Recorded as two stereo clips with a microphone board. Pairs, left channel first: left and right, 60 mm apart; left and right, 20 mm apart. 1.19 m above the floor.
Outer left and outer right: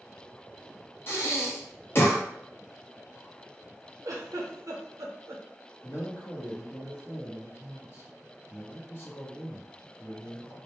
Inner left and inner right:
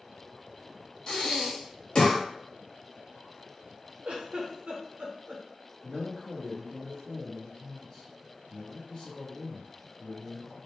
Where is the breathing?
40° left (ahead or behind), 0.8 m.